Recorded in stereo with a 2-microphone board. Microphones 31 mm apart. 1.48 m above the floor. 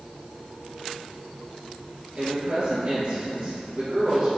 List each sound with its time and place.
2.2 s a woman speaking: 40° right (ahead or behind), 2 m